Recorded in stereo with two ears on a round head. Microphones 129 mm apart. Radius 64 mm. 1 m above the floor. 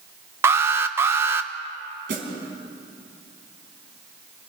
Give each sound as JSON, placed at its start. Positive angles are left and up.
{"t": 0.4, "sound": "an alarm", "side_deg": -15, "distance_m": 0.9}
{"t": 2.1, "sound": "a snare drum", "side_deg": -65, "distance_m": 4.5}